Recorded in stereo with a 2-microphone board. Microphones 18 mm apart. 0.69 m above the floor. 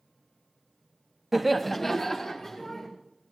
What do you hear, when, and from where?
1.3 s laughter: 15° right (ahead or behind), 0.5 m; by 2.9 s 30° left (ahead or behind), 2 m